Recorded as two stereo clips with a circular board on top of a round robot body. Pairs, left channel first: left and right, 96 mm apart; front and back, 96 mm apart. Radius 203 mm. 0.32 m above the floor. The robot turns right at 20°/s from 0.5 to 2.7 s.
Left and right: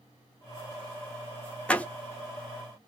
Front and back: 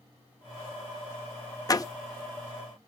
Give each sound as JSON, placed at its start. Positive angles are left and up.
{"t": 1.7, "sound": "a door slam", "azimuth_deg": 20, "distance_m": 0.8}